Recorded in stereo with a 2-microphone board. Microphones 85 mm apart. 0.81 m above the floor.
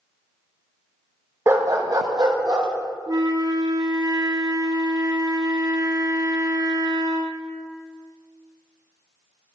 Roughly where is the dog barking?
Right.